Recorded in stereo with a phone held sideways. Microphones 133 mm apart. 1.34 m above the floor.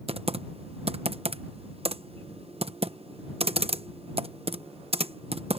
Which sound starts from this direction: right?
Typing on a keyboard, at 0.1 s.